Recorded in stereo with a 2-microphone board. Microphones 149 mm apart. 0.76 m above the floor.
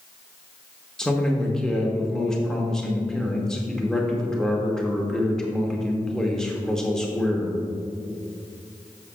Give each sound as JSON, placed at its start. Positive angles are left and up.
{"t": 1.0, "sound": "a man speaking", "side_deg": 5, "distance_m": 1.1}